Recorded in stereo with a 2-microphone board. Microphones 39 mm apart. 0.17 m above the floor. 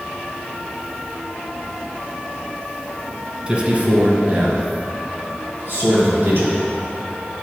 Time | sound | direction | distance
3.5 | a man speaking | 25° right (ahead or behind) | 1.5 m